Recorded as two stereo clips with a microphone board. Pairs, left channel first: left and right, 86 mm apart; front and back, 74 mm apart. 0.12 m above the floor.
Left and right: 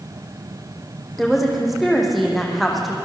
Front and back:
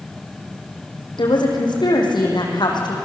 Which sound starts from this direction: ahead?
A woman speaking, at 1.2 s.